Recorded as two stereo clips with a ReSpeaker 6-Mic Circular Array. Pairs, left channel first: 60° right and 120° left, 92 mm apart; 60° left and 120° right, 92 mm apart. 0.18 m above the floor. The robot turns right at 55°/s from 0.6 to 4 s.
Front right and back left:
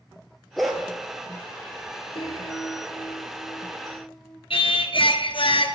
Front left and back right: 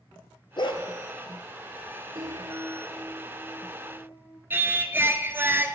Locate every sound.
0.6 s a dog barking: 30° left, 1.2 m; by 0.8 s 40° left, 1.2 m
2.1 s a piano: 80° right, 2 m; by 4.4 s 20° left, 2 m
4.5 s singing: 55° right, 0.7 m